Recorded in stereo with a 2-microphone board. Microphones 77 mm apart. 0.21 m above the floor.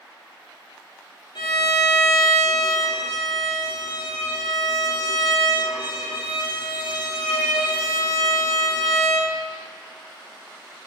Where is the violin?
80° left, 0.8 m.